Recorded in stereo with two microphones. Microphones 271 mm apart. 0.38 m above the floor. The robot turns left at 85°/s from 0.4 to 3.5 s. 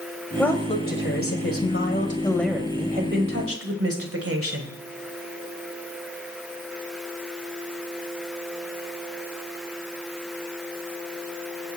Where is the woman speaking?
175° left, 2.0 m; by 4.7 s 85° right, 2.0 m.